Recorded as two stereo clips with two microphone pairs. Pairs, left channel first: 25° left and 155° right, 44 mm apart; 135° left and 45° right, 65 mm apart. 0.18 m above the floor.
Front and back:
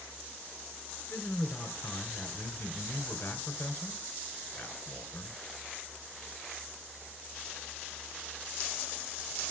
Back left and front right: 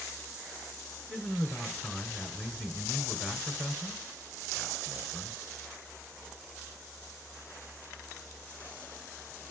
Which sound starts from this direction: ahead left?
A man speaking, at 1.1 s.